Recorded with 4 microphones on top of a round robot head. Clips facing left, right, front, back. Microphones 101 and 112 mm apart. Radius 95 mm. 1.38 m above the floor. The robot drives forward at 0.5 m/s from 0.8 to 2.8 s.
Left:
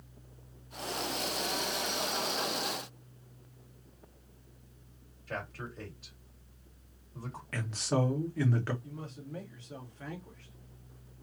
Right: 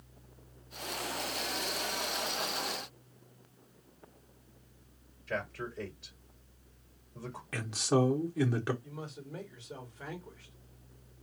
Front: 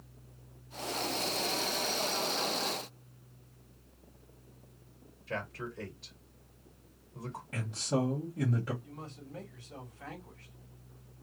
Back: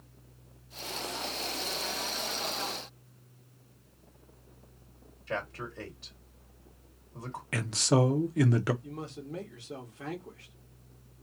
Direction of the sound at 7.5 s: 170° right.